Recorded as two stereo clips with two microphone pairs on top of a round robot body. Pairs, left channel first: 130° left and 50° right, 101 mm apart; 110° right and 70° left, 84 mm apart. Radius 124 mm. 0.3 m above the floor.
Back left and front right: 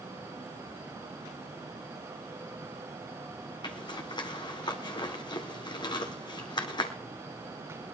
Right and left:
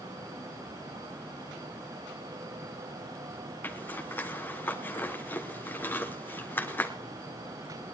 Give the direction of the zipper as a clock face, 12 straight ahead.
6 o'clock.